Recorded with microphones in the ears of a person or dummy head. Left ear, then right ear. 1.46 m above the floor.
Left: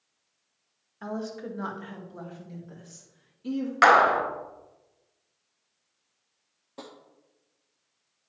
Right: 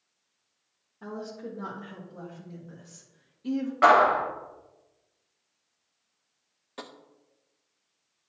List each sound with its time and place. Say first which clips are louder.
1.0 s a woman speaking: left 3 dB; 50° left (ahead or behind), 1.8 m; by 3.7 s centre (ahead or behind), 2.5 m
3.8 s a clap: left 1 dB; 75° left (ahead or behind), 1.9 m
6.8 s tapping: right 2 dB; 45° right (ahead or behind), 0.7 m